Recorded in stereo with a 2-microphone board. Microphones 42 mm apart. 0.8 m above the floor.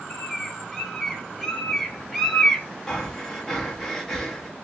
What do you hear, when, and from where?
0.1 s a bird: 5° left (ahead or behind), 1.1 m
2.9 s breathing: 15° left (ahead or behind), 1.0 m